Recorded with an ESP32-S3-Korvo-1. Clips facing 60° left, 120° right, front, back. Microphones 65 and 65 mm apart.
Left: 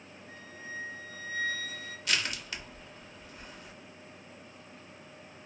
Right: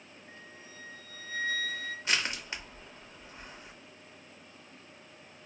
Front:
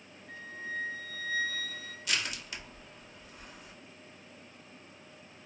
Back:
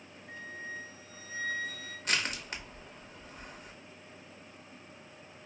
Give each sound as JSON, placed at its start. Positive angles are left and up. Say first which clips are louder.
{"t": 0.3, "sound": "a flute", "louder": "left 8 dB, front 2 dB", "azimuth_deg": -170, "distance_m": 1.0}
{"t": 2.0, "sound": "crushing", "louder": "even, back 2 dB", "azimuth_deg": -170, "distance_m": 0.5}